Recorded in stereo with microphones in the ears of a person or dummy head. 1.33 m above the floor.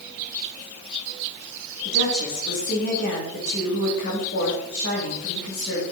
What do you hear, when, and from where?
1.9 s a woman speaking: 65° left (ahead or behind), 3 m